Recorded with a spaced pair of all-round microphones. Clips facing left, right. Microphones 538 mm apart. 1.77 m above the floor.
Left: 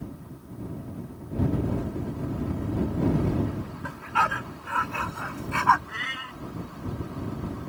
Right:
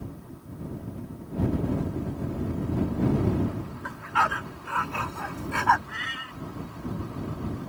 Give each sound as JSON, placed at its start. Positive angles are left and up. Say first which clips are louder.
{"t": 3.8, "sound": "a dog barking", "louder": "even", "side_deg": 50}
{"t": 5.9, "sound": "a cat meowing", "louder": "even", "side_deg": -10}